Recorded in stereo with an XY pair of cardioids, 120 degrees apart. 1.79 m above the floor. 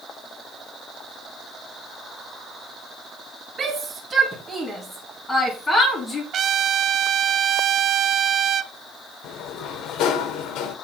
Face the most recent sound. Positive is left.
turn(degrees=70)